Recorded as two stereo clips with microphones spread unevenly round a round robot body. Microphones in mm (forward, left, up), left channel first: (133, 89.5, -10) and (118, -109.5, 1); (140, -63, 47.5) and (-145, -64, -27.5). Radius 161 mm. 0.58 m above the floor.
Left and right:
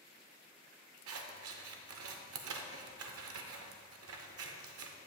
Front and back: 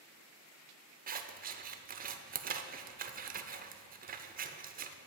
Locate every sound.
1.1 s scissors: 120° right, 0.5 m